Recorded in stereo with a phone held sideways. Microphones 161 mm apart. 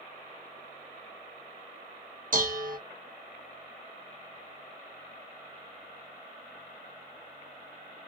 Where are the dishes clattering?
60° right (ahead or behind), 0.6 m.